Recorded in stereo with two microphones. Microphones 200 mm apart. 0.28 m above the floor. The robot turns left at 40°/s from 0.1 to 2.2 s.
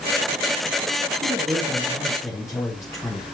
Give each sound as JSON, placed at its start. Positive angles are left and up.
{"t": 1.2, "sound": "a man speaking", "azimuth_deg": -160, "distance_m": 2.0}